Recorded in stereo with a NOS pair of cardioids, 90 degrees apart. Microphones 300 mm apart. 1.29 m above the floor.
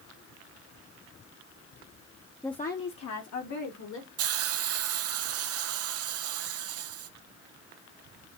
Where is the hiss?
55° right, 0.6 m.